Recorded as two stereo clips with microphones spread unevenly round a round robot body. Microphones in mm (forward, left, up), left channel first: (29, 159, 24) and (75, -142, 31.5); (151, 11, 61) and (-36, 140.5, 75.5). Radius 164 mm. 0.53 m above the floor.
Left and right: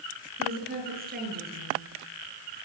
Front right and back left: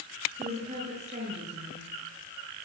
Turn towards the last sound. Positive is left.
turn(degrees=-145)